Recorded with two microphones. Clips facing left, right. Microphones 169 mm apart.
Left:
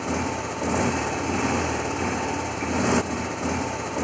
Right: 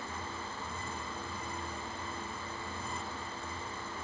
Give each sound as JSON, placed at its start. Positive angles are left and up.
{"t": 0.0, "sound": "a motorcycle", "side_deg": 85}